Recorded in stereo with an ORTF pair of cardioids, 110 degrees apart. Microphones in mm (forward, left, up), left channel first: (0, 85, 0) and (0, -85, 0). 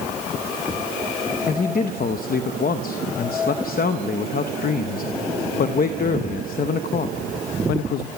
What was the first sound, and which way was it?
A man speaking, 60° left.